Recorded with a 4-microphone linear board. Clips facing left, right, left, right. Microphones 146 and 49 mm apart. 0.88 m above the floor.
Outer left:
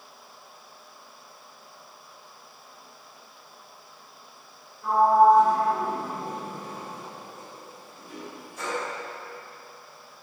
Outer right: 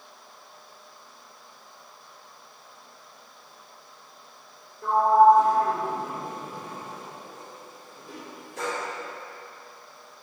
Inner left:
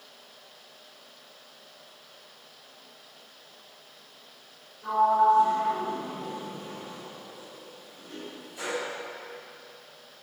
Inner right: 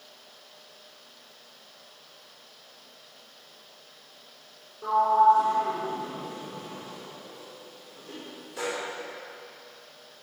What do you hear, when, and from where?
4.8 s a sliding door: 75° right (ahead or behind), 3 m